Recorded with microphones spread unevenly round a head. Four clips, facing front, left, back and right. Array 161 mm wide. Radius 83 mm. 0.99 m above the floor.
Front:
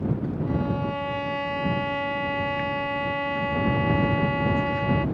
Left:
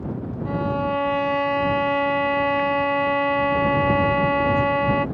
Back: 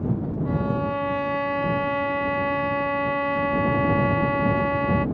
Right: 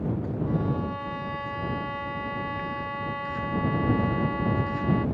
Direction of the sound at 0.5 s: 120° left.